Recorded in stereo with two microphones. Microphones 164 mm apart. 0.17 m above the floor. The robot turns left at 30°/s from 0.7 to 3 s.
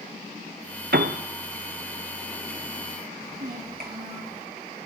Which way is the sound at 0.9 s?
75° right (ahead or behind).